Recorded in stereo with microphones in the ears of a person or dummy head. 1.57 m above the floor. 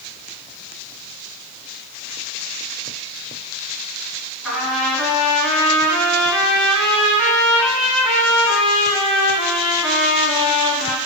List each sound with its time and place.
4.4 s a trumpet: centre (ahead or behind), 3 m